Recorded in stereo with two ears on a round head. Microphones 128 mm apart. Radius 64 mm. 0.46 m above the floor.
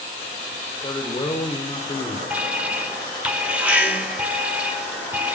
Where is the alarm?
10° right (ahead or behind), 1.1 m.